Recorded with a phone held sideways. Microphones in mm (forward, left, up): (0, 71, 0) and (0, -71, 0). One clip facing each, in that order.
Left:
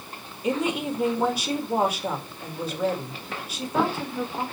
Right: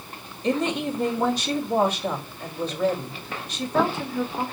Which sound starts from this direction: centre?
A woman speaking, at 0.4 s.